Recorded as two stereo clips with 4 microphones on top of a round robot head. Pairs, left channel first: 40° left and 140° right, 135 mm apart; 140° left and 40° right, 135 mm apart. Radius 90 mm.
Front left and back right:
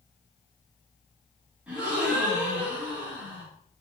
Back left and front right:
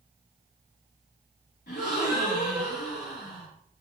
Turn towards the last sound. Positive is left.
turn(degrees=140)